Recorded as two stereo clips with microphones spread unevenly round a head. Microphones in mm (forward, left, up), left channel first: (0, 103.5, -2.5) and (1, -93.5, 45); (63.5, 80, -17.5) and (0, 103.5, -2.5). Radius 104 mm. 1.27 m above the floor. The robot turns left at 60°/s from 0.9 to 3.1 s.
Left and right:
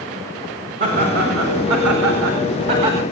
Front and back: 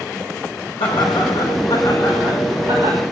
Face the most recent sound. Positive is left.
turn(degrees=-170)